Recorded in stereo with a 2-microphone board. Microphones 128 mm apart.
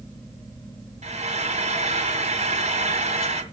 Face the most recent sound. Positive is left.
turn(degrees=-65)  # may be behind; listen again after turning